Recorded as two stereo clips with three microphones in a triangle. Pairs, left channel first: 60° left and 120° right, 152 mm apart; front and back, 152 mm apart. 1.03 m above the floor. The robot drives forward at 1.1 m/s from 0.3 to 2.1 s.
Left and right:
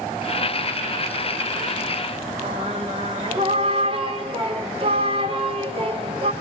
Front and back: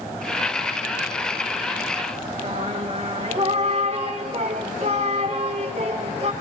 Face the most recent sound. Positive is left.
turn(degrees=-155)